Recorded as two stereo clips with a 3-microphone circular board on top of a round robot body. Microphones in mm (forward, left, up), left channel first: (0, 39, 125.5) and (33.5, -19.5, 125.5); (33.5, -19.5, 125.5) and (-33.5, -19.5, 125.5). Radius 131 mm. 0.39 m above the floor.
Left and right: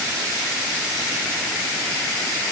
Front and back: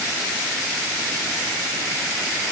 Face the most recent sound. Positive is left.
No sound to turn to.